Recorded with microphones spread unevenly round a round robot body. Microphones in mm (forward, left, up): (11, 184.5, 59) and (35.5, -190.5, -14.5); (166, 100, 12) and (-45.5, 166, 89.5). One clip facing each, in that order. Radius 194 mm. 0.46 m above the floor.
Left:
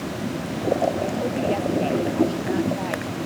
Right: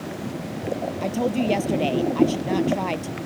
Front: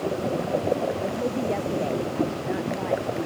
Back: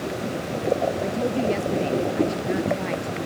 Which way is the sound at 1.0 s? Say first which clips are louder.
Right 1 dB, back 3 dB; 130° right.